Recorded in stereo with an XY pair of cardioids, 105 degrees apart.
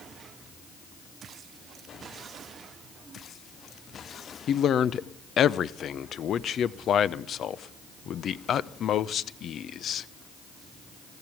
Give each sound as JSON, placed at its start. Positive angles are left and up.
{"t": 4.5, "sound": "a man speaking", "azimuth_deg": 60, "distance_m": 0.6}